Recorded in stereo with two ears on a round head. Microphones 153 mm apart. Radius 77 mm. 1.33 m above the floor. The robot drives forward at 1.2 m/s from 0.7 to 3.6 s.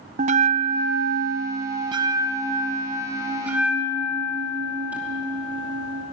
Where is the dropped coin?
I don't hear a dropped coin.